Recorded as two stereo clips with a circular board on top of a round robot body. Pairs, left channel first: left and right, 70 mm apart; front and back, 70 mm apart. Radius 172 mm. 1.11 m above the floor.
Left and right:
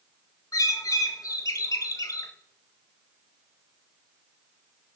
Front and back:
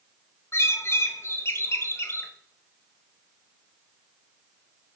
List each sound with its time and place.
0.5 s a bird: 50° left, 1.4 m